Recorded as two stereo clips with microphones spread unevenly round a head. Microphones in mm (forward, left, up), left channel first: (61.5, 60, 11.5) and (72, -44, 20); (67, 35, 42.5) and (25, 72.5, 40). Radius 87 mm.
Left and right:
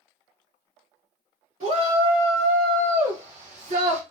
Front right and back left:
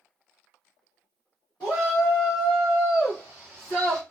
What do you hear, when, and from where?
1.6 s a shout: 95° right, 2.5 m; by 4.0 s 130° right, 0.8 m